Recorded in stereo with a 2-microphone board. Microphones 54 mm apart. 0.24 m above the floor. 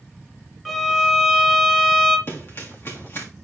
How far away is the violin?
About 1.1 m.